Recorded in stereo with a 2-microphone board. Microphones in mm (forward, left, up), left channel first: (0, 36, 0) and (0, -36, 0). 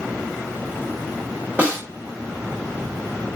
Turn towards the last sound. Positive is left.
turn(degrees=-20)  # may be behind; listen again after turning